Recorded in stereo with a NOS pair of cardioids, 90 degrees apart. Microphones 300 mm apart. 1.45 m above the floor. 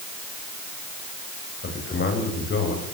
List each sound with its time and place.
1.6 s a man speaking: 40° left, 9.5 m